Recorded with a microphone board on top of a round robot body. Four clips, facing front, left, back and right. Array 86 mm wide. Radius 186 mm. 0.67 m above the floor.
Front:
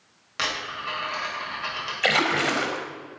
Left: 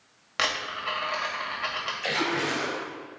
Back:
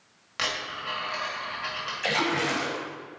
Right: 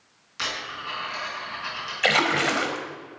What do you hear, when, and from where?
0.4 s a dropped coin: 85° left, 1.8 m
2.0 s a splash: 55° right, 1.4 m